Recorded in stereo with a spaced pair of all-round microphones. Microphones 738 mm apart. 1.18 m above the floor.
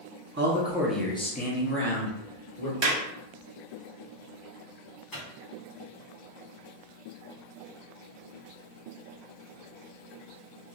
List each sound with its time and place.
0.4 s a man speaking: 20° right (ahead or behind), 0.5 m; by 2.7 s 25° left (ahead or behind), 1.3 m
2.8 s a clap: 40° right (ahead or behind), 0.7 m
5.1 s a microwave: 30° left (ahead or behind), 1.0 m